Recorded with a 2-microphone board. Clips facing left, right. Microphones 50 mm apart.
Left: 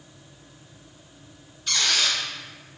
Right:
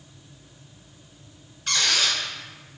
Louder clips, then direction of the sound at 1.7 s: Right 1 dB; 55° right (ahead or behind).